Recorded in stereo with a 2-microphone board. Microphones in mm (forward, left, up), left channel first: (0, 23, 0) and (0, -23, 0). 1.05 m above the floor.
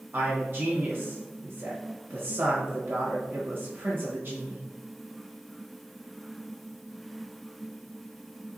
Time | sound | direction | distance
0.1 | a man speaking | 55° right (ahead or behind) | 1.2 m